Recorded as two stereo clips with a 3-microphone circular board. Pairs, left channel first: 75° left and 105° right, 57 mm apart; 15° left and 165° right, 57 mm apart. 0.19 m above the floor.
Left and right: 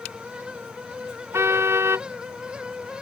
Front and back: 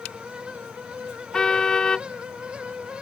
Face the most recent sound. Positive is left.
turn(degrees=-65)